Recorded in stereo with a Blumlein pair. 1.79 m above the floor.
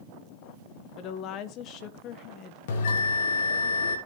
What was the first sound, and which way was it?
A woman speaking, 35° left.